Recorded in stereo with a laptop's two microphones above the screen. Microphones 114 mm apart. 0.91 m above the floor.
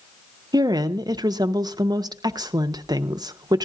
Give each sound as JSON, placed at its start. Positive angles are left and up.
{"t": 0.5, "sound": "a woman speaking", "side_deg": -35, "distance_m": 0.6}